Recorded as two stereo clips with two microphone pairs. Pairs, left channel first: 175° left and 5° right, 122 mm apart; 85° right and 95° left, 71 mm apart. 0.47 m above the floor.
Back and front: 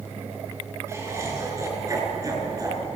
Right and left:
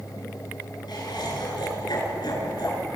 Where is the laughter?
70° right, 6.5 m; by 2.8 s 65° right, 6 m.